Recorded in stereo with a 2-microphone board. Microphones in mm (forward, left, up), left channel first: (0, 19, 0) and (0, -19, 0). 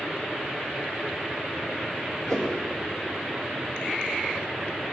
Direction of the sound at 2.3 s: 55° left (ahead or behind).